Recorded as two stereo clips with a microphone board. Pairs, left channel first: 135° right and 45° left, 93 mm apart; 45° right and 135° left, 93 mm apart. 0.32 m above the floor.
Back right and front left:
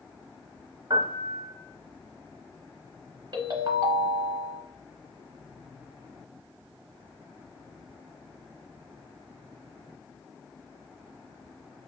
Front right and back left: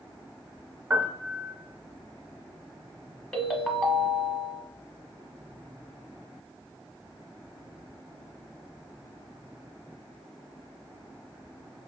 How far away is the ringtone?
About 0.8 m.